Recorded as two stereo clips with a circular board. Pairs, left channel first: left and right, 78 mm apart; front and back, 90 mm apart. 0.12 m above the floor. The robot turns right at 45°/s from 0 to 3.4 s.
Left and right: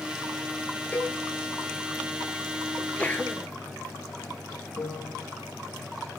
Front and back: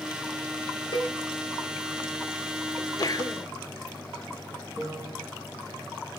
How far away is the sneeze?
About 2.5 m.